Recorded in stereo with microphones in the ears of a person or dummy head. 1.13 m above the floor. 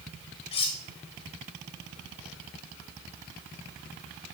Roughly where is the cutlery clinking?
Left.